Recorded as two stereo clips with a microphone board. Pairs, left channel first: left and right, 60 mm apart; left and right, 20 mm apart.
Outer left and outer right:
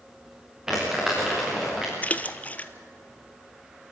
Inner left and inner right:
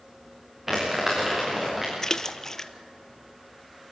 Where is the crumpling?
10° right (ahead or behind), 7.5 m.